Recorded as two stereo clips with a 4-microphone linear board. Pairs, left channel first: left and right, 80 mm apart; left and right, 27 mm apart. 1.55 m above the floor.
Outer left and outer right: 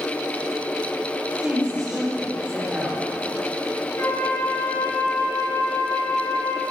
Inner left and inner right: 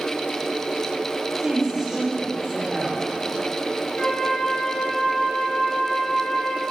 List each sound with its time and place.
1.4 s a woman speaking: 20° right (ahead or behind), 5 m
4.0 s a flute: 40° left (ahead or behind), 10 m